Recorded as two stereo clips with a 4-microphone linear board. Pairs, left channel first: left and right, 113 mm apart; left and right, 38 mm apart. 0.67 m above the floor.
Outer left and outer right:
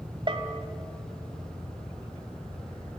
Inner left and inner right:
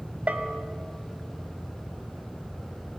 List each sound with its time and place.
0.3 s a bell: 45° right (ahead or behind), 2 m